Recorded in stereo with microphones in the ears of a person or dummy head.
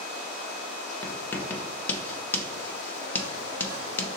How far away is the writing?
About 0.7 m.